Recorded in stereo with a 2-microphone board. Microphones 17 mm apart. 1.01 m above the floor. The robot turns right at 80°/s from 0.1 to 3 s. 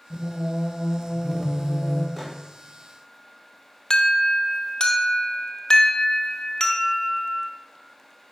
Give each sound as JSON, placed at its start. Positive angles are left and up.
{"t": 0.1, "sound": "singing", "azimuth_deg": -80, "distance_m": 1.1}
{"t": 2.2, "sound": "a microwave", "side_deg": -5, "distance_m": 1.3}
{"t": 3.9, "sound": "an alarm", "side_deg": 45, "distance_m": 0.8}